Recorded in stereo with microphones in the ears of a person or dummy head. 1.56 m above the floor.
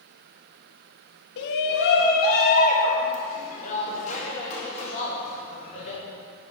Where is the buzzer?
No buzzer in this recording.